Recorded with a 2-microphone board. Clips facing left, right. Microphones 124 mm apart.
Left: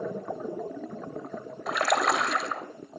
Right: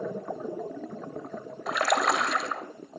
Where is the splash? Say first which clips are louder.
Even; centre (ahead or behind), 0.6 m.